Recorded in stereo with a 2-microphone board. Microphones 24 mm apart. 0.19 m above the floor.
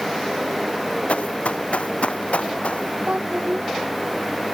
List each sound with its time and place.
1.1 s running footsteps: 90° left; by 3.0 s 80° left
3.1 s a child speaking: 75° right (ahead or behind)